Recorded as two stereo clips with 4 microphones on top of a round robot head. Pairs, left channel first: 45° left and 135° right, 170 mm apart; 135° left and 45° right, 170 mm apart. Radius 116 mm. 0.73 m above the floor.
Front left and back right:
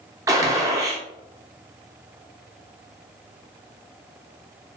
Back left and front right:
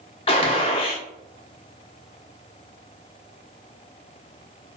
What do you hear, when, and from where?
0.3 s a gunshot: 165° left, 0.8 m